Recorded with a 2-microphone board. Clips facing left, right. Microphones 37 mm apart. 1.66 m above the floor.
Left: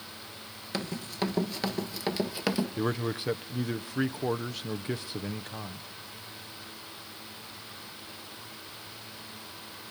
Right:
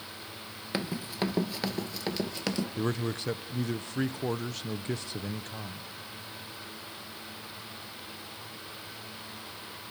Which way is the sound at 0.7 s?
20° right (ahead or behind).